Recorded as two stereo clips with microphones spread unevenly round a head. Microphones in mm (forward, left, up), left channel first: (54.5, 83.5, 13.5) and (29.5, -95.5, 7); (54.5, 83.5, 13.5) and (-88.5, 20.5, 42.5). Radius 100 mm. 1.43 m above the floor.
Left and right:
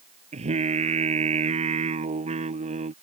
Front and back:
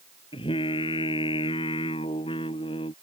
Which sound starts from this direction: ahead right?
Singing, at 0.3 s.